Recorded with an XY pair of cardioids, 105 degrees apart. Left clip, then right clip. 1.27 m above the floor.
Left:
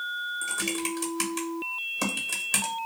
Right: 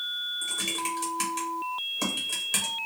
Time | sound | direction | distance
0.4 | typing on a keyboard | 25° left | 1.0 m